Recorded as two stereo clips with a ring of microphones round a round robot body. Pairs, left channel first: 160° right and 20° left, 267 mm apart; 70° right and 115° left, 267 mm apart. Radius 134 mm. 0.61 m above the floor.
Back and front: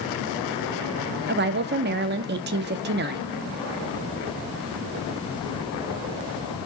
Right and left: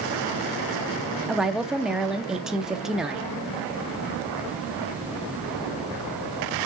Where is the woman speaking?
25° left, 0.6 m.